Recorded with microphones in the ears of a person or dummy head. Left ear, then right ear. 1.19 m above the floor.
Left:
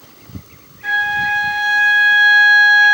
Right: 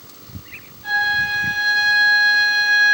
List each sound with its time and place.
0.8 s a flute: 45° left (ahead or behind), 0.9 m